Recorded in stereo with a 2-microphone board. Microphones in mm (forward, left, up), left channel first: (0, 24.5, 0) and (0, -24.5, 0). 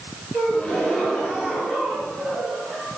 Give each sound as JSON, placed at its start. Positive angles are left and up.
{"t": 0.3, "sound": "a gasp", "side_deg": 10, "distance_m": 5.0}